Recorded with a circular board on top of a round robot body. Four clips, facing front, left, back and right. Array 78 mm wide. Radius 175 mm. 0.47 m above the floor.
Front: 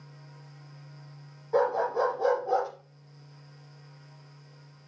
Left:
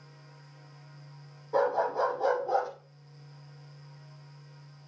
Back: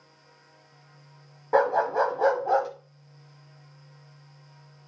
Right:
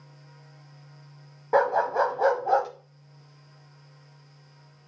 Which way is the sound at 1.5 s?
125° right.